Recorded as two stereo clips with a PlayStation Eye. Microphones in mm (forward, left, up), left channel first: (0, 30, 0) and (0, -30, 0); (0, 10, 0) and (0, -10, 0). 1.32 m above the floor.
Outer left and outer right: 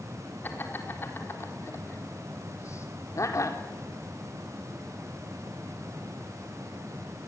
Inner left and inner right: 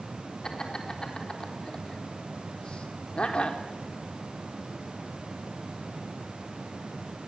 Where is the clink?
I don't hear a clink.